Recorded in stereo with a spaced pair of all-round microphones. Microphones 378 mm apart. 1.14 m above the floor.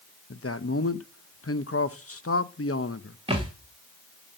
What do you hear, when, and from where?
0.3 s a man speaking: 35° left (ahead or behind), 0.8 m
3.3 s a thud: 15° right (ahead or behind), 4.5 m